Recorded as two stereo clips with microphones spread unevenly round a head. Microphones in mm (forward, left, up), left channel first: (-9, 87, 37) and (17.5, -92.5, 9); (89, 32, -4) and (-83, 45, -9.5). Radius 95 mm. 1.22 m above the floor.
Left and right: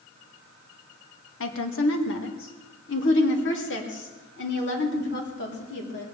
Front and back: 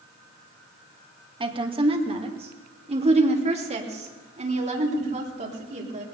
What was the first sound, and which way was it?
A woman speaking, 115° left.